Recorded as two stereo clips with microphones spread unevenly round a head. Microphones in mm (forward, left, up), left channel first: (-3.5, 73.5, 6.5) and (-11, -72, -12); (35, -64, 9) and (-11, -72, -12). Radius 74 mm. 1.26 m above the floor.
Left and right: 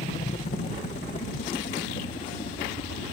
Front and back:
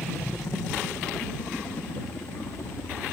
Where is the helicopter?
70° left; by 3.1 s 45° left.